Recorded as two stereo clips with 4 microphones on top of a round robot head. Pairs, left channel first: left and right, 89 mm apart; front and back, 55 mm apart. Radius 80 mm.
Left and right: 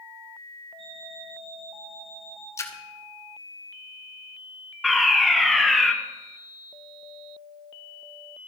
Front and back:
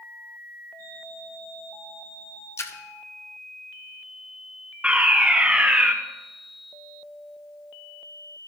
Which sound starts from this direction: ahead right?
An alarm clock, at 0.8 s.